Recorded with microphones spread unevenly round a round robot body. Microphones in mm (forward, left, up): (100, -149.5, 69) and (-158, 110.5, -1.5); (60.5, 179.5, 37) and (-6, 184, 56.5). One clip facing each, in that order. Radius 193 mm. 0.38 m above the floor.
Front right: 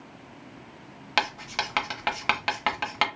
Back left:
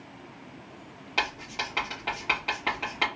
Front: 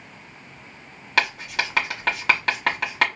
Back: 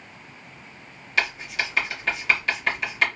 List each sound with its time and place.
1.2 s writing: 25° right, 1.2 m